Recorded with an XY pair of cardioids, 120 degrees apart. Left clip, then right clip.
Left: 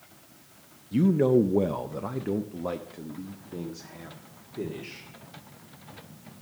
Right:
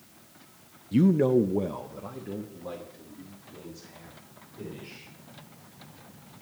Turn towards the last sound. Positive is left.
turn(degrees=75)